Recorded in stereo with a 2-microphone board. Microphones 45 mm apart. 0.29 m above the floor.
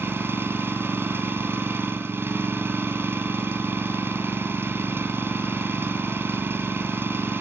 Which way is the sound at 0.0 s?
55° right (ahead or behind).